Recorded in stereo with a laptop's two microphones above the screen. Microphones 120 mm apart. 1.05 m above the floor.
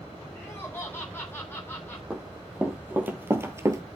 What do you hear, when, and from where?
0.3 s laughter: 20° left (ahead or behind), 3 m
2.1 s running footsteps: 10° right (ahead or behind), 2.5 m; by 3.8 s 25° right (ahead or behind), 1.3 m